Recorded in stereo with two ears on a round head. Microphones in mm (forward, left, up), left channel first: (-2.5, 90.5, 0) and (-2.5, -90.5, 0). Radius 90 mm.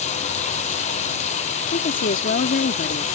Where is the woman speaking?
40° left (ahead or behind).